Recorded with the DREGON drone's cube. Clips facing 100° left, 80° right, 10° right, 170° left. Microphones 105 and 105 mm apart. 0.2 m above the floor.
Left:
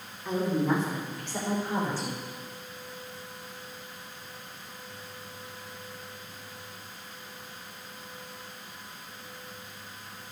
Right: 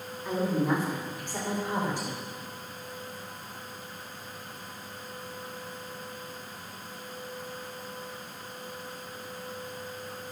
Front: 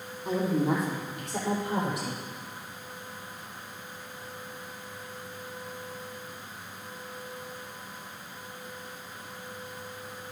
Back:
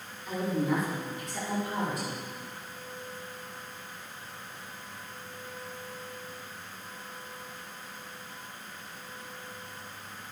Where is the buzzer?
No buzzer in this recording.